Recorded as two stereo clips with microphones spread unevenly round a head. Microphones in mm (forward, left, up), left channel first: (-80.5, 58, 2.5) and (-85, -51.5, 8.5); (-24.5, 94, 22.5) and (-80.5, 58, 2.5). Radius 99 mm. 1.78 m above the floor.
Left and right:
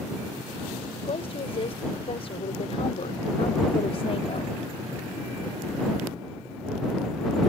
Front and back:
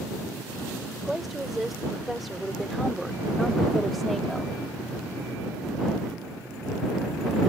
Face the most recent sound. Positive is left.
turn(degrees=115)